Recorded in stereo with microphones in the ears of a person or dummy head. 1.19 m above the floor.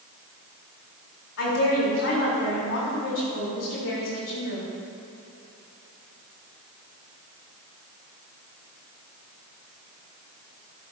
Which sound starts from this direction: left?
A woman speaking, at 1.4 s.